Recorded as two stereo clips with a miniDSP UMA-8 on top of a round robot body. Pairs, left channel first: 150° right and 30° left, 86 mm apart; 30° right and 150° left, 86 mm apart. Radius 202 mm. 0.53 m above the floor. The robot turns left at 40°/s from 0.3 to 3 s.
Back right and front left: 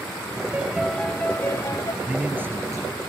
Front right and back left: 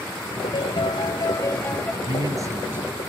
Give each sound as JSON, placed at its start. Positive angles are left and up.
{"t": 0.5, "sound": "a piano", "azimuth_deg": -45}
{"t": 2.0, "sound": "a man speaking", "azimuth_deg": 110}